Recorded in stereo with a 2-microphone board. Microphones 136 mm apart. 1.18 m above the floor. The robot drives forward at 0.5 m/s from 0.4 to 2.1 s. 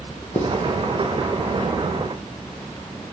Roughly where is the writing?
Left.